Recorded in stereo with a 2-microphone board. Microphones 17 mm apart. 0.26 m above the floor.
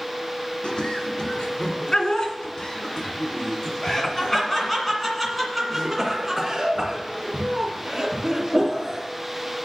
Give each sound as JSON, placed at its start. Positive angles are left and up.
{"t": 0.6, "sound": "laughter", "side_deg": 70, "distance_m": 3.0}